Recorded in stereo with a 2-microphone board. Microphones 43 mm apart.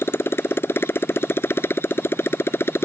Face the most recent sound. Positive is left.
turn(degrees=70)  # may be behind; listen again after turning